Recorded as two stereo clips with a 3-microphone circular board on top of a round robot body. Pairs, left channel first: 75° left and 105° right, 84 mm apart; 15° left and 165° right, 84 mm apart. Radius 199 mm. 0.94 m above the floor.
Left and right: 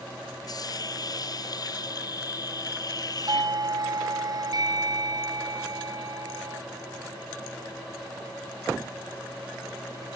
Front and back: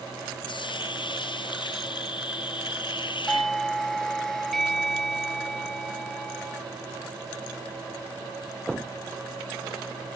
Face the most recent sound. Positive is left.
turn(degrees=-70)